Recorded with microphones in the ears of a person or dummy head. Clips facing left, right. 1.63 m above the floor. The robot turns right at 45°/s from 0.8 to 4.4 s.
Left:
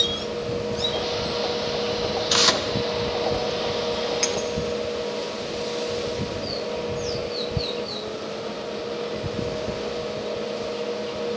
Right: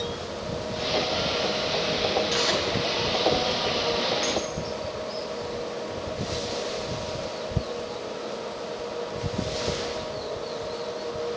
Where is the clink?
35° left (ahead or behind), 0.9 m.